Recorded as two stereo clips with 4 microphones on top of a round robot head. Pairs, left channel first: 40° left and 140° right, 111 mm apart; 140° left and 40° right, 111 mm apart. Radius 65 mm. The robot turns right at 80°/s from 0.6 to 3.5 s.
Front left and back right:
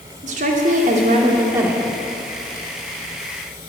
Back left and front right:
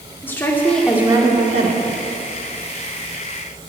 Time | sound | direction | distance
0.2 | a woman speaking | 150° right | 2.5 m